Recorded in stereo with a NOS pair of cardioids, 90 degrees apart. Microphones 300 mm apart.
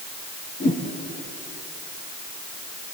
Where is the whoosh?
30° left, 6 m.